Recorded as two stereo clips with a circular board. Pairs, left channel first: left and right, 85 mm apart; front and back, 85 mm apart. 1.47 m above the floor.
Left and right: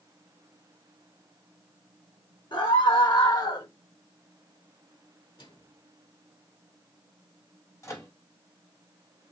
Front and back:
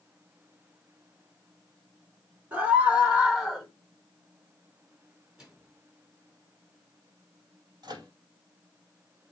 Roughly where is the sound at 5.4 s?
Left.